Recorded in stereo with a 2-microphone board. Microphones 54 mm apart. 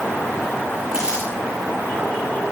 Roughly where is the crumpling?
Centre.